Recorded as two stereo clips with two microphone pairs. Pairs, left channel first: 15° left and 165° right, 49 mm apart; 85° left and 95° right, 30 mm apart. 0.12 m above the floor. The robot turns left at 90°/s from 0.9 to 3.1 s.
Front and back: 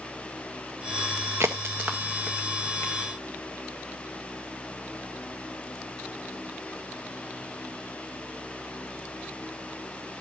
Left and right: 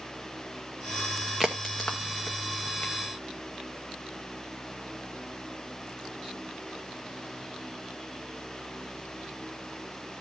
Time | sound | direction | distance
1.4 | a crack | 170° left | 1.7 m